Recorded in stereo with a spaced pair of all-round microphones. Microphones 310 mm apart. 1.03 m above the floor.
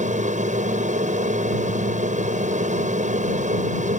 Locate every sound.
0.0 s an aircraft: 25° right (ahead or behind)